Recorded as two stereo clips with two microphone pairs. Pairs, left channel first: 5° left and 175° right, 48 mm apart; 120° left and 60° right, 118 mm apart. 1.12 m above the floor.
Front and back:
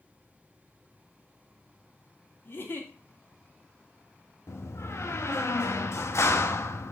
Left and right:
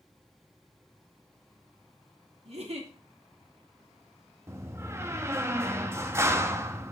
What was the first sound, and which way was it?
A giggle, 30° right.